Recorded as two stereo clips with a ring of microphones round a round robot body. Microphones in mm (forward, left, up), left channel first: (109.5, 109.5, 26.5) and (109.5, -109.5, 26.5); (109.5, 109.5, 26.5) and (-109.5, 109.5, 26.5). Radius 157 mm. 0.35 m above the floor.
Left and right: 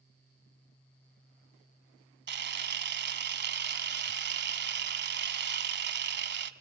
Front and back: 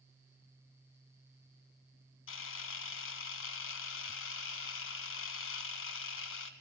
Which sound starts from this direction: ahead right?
A camera shutter, at 2.3 s.